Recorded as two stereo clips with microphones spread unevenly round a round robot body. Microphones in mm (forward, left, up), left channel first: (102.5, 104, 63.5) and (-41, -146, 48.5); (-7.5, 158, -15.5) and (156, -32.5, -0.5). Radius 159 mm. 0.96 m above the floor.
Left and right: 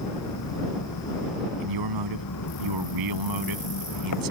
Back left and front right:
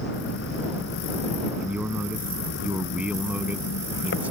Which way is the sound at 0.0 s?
90° left.